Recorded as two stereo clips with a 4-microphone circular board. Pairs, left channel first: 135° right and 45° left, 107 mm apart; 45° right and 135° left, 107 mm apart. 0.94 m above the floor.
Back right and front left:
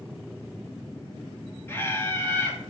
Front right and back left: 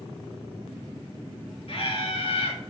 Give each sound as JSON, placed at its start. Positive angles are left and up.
{"t": 1.7, "sound": "laughter", "azimuth_deg": -70, "distance_m": 1.4}